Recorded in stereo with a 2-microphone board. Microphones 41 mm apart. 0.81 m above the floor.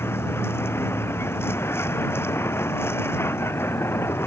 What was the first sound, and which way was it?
A vehicle, 60° left (ahead or behind).